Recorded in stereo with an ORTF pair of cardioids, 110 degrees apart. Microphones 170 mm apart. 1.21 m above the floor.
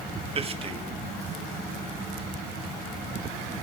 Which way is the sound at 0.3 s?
35° right.